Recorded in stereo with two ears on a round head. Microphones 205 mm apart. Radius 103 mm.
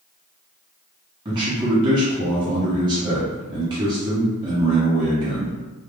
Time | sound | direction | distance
1.2 | a man speaking | 20° right (ahead or behind) | 0.7 m